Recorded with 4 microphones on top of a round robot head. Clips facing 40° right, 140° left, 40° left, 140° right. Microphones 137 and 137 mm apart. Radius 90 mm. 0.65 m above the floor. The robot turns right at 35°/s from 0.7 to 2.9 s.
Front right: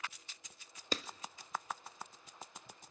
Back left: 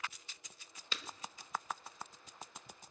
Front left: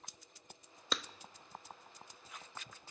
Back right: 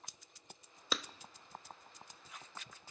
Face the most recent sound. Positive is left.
turn(degrees=15)